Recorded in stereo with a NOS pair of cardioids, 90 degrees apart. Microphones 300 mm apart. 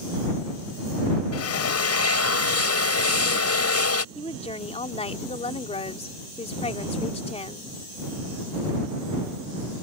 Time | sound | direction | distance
1.3 | a drill | 60° left | ?
4.2 | a woman speaking | 20° left | ?